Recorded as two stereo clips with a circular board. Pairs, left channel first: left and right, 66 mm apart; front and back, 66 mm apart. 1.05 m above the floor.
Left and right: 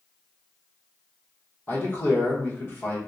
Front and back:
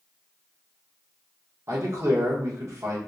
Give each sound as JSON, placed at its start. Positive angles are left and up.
{"t": 1.7, "sound": "a man speaking", "azimuth_deg": 145, "distance_m": 0.9}